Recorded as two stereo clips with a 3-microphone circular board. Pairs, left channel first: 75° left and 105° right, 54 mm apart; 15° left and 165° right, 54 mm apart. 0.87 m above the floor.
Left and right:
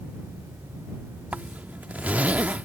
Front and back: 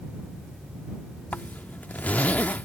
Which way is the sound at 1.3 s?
45° right.